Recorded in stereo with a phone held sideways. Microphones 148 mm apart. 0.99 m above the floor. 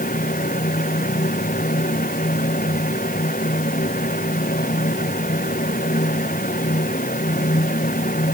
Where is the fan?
70° left (ahead or behind).